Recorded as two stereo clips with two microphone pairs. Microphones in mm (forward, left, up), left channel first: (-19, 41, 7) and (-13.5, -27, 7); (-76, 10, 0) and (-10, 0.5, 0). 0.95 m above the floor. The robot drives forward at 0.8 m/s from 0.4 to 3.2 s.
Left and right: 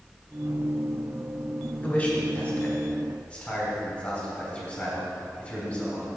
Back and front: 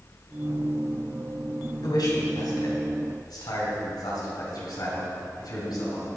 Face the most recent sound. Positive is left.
turn(degrees=170)